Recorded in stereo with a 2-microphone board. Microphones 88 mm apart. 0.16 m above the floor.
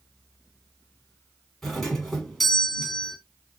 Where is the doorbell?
5° left (ahead or behind), 1.5 m.